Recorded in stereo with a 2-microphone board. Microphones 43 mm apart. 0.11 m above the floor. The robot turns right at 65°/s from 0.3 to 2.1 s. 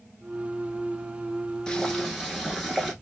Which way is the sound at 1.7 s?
15° left (ahead or behind).